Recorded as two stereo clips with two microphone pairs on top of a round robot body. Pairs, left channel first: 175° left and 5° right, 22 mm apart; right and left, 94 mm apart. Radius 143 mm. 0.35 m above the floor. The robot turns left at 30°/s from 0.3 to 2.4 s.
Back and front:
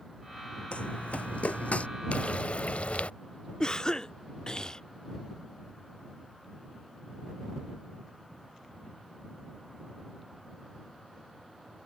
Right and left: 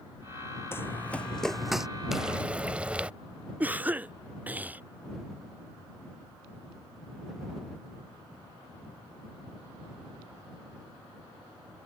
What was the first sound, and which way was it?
Running footsteps, 155° right.